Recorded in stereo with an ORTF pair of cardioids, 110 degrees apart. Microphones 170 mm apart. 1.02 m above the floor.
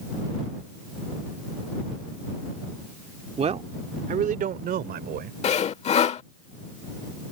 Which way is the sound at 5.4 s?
45° left.